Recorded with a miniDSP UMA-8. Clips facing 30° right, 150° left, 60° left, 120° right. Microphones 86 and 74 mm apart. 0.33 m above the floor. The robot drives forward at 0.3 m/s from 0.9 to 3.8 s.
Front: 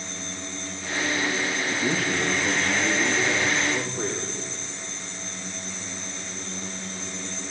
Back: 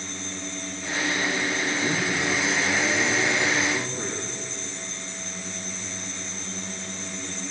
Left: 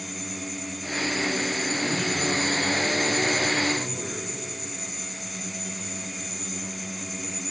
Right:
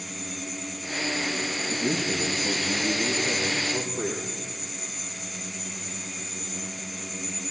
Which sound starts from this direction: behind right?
A man speaking, at 1.7 s.